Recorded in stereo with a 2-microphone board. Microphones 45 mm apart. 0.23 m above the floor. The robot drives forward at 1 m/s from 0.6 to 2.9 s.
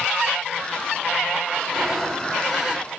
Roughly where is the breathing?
Centre.